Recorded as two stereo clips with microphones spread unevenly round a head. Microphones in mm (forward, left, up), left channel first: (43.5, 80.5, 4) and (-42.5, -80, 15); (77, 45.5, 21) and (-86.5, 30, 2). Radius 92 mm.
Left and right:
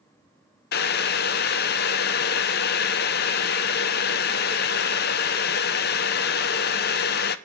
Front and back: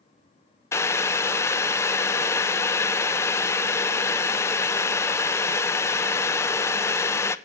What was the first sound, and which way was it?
Boiling, 70° left.